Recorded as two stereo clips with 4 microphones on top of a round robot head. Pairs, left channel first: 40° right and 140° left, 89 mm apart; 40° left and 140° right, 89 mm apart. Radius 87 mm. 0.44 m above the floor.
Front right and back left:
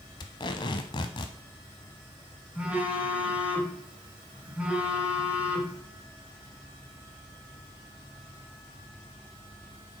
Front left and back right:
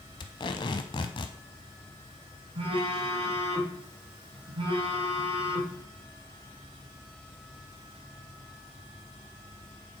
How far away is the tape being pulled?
About 0.6 m.